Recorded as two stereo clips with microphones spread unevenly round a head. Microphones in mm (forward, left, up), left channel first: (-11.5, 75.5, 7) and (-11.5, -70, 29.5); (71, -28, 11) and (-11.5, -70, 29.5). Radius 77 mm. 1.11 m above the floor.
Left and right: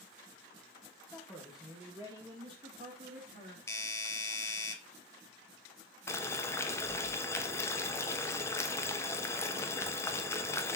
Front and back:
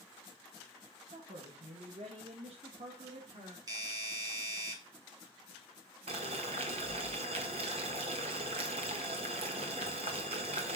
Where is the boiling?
160° left, 1.2 m.